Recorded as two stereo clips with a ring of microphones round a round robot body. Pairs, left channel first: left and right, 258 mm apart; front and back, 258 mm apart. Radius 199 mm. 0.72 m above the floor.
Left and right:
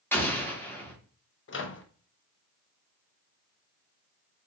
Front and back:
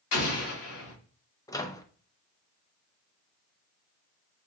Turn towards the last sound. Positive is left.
turn(degrees=75)